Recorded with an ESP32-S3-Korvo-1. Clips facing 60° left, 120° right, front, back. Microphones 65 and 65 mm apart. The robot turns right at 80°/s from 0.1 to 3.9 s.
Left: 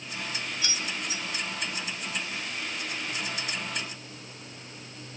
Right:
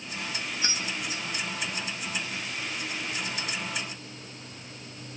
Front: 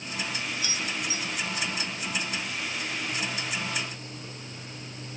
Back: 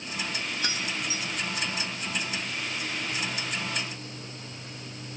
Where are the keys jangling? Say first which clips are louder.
Right 1 dB, even; 175° right, 2.0 m; by 1.2 s 125° right, 2.0 m.